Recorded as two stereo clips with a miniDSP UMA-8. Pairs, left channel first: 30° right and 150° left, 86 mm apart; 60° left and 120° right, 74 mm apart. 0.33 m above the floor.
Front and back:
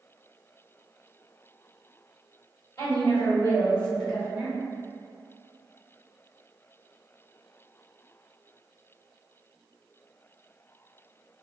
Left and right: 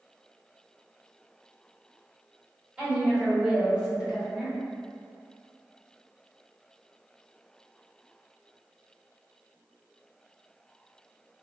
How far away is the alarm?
No alarm in this recording.